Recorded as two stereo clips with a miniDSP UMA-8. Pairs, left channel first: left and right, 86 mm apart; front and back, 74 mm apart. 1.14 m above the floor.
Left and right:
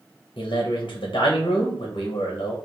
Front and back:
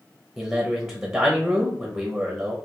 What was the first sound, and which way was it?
A man speaking, 115° left.